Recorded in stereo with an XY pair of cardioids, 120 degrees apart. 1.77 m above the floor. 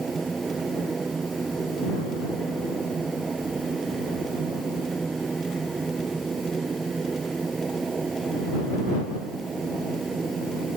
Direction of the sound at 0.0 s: 25° right.